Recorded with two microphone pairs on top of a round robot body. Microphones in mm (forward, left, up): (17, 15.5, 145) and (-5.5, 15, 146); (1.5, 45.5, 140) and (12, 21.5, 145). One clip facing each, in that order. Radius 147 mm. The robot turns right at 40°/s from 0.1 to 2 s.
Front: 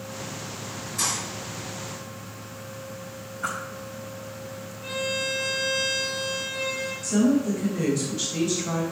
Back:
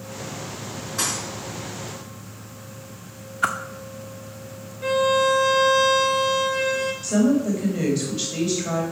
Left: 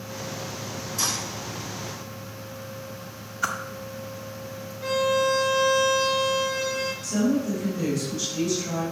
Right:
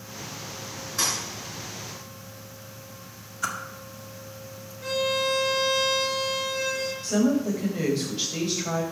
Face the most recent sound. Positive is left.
turn(degrees=-125)